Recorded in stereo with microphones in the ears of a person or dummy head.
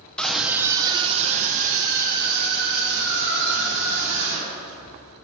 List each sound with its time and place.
0.2 s a scream: 10° left (ahead or behind), 0.6 m; by 4.8 s 60° right (ahead or behind), 2.5 m